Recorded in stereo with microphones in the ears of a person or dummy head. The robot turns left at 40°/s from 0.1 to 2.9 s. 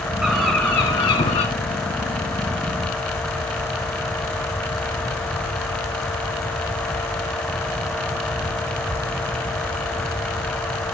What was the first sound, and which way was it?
A bird, 170° right.